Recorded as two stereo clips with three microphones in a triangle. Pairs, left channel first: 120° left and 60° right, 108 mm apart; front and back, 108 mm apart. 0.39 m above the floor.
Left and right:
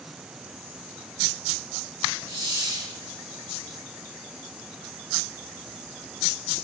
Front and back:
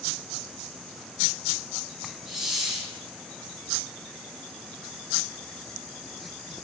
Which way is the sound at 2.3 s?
95° right.